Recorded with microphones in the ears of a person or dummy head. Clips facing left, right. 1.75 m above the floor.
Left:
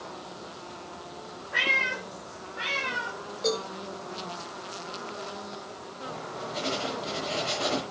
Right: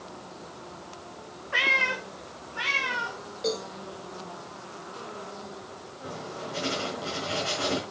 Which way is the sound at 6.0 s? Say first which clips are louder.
Even; 45° right (ahead or behind).